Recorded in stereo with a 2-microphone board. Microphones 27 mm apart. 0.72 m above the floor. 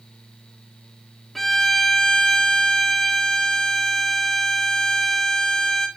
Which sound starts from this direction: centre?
A violin, at 1.4 s.